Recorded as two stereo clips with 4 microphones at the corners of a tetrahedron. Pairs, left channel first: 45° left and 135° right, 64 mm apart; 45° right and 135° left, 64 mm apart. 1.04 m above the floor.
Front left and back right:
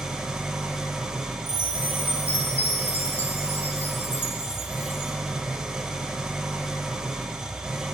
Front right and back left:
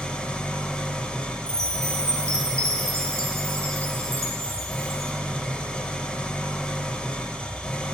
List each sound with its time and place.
0.0 s an engine running: 75° right, 0.8 m
1.5 s a chime: 100° left, 1.2 m